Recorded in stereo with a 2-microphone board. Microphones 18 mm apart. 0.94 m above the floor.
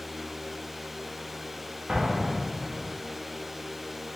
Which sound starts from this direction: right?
An explosion, at 1.9 s.